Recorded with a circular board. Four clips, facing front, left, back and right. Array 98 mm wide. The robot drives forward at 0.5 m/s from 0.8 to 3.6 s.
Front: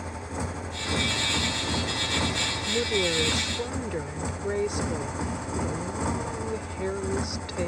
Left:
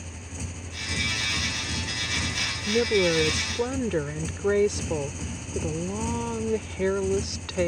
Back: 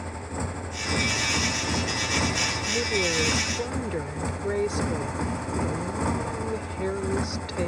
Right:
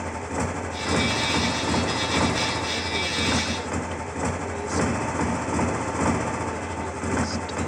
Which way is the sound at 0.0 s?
90° right.